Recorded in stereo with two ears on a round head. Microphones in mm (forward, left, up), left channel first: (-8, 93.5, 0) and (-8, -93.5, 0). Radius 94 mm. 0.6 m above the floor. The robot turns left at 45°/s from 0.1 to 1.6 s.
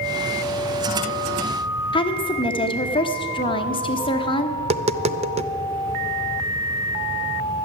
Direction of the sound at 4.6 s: 30° right (ahead or behind).